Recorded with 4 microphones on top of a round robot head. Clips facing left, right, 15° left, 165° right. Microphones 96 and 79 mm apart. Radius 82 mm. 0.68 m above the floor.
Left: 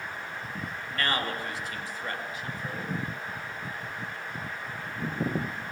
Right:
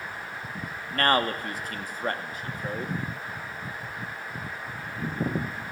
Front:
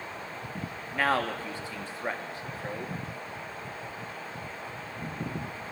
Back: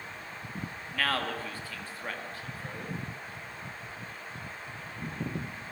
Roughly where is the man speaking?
Ahead right.